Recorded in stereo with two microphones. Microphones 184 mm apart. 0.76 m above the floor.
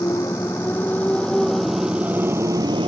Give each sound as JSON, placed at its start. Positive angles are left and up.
{"t": 0.0, "sound": "a motorcycle", "side_deg": 15}